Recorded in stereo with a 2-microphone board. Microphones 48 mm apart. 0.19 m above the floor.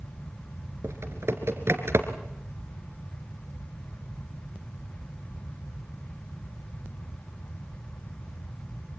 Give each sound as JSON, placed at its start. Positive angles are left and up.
{"t": 0.8, "sound": "typing on a keyboard", "side_deg": -60, "distance_m": 2.0}